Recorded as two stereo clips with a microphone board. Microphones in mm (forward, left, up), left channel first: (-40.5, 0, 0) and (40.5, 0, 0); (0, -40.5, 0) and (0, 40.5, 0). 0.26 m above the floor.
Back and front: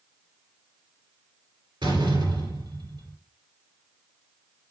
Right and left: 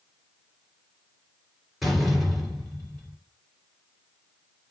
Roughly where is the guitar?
I don't hear a guitar.